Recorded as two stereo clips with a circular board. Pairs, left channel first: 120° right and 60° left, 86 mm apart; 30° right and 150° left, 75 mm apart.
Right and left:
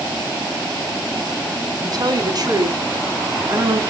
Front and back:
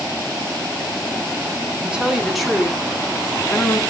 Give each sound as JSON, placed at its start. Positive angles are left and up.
{"t": 1.8, "sound": "a woman speaking", "azimuth_deg": 80, "distance_m": 2.0}